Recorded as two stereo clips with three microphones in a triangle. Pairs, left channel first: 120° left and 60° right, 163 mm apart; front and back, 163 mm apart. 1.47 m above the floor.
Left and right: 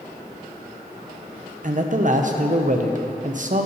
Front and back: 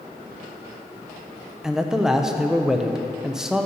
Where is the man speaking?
95° right, 0.7 m.